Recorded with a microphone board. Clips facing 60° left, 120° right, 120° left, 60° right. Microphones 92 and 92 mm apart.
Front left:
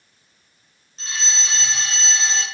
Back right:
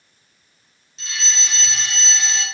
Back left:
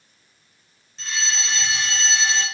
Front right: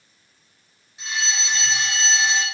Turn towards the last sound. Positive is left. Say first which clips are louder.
# front left 1 dB, front right 1 dB
turn(degrees=15)